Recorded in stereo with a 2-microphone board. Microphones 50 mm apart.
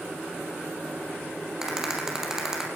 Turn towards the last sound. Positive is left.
turn(degrees=-15)  # may be behind; listen again after turning